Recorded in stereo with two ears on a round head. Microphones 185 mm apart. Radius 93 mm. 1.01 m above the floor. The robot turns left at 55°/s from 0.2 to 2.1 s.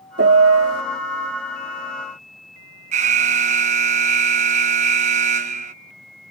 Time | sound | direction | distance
0.2 | a piano | 55° right | ?
2.9 | an alarm | 35° right (ahead or behind) | ?